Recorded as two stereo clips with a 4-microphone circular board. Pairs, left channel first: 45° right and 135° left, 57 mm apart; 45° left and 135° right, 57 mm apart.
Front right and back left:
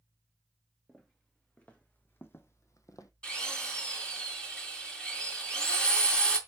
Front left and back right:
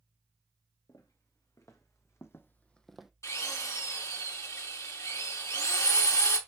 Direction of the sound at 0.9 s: 30° left.